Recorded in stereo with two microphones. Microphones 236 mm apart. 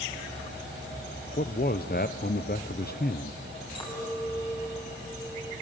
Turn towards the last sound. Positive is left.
turn(degrees=20)  # may be behind; listen again after turning